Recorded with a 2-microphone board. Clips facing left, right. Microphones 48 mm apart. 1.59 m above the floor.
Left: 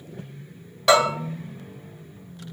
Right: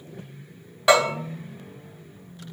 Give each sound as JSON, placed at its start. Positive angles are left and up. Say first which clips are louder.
{"t": 0.9, "sound": "a bell", "louder": "left 1 dB", "side_deg": -10, "distance_m": 1.5}